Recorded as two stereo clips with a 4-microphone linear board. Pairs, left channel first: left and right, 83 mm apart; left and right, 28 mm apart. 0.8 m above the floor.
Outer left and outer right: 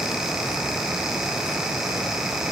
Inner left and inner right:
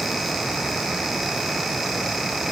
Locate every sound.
Only background noise.